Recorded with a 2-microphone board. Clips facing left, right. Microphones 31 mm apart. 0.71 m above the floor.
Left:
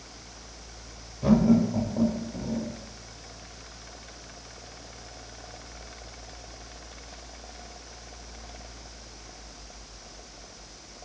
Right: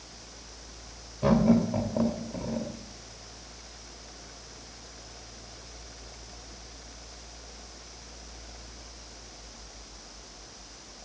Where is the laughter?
25° right (ahead or behind), 2.5 m.